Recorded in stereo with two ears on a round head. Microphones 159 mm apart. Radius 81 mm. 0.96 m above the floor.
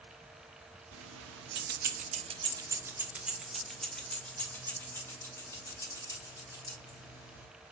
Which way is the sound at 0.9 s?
85° right.